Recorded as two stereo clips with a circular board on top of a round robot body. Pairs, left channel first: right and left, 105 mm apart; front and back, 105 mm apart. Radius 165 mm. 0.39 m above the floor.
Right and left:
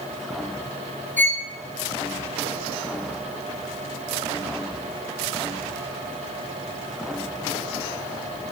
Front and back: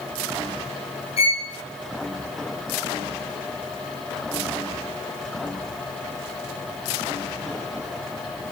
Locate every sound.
1.2 s a violin: 20° right, 2 m